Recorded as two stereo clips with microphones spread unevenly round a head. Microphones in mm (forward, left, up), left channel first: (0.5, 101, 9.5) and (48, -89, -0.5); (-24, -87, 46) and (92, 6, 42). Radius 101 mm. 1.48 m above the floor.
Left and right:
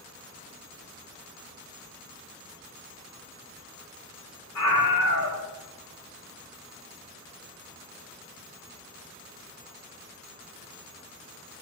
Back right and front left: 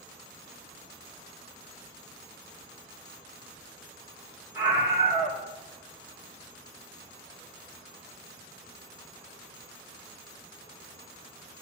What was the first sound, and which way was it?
A scream, 110° left.